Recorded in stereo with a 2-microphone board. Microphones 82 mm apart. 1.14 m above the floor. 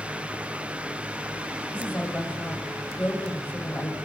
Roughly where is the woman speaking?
Left.